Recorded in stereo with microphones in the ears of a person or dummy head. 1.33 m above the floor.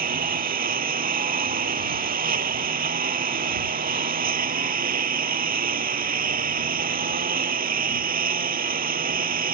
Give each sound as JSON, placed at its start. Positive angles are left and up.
{"t": 0.0, "sound": "a lawn mower", "side_deg": -35}